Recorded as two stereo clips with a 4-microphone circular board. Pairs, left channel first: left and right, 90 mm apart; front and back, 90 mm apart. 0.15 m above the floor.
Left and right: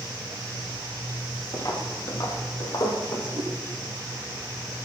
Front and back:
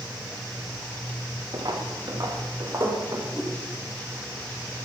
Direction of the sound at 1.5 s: 140° left.